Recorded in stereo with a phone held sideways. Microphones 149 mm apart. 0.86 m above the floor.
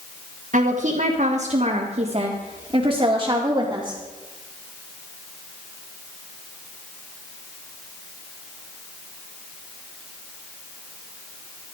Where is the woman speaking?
65° right (ahead or behind), 1.8 m; by 4.0 s 20° right (ahead or behind), 2.5 m.